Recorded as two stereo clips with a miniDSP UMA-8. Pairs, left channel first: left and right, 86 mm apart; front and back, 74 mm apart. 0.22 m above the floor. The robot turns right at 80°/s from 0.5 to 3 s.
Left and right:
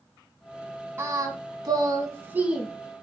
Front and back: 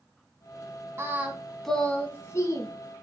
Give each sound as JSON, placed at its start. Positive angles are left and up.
{"t": 1.0, "sound": "singing", "azimuth_deg": -140, "distance_m": 0.8}